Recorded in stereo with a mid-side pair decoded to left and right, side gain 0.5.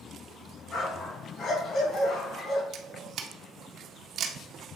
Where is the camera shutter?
60° right, 1.4 m.